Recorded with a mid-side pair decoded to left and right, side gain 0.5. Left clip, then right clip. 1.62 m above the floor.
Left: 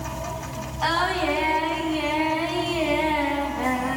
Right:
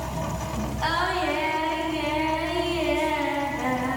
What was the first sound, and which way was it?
Singing, 25° left.